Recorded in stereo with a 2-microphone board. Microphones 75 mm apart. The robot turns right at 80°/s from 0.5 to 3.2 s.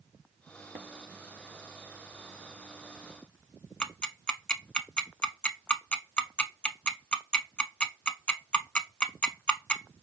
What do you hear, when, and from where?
3.8 s ticking: 15° left (ahead or behind), 0.5 m